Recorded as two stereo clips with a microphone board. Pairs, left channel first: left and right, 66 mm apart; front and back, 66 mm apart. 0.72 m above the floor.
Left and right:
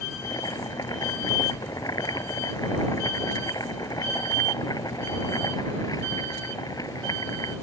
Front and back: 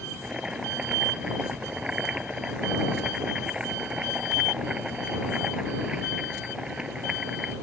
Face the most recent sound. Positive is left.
turn(degrees=100)